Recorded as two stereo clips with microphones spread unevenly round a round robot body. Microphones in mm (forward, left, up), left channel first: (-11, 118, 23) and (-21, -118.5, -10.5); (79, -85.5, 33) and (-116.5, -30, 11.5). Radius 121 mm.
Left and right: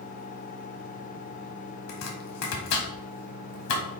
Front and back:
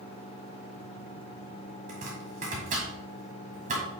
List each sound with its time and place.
1.9 s chopping: 100° left, 1.5 m